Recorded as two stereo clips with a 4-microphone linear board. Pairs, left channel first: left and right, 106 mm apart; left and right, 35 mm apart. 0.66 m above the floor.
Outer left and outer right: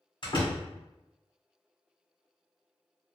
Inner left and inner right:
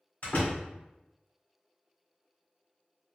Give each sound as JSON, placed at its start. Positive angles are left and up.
{"t": 0.2, "sound": "a door slam", "side_deg": 50, "distance_m": 1.6}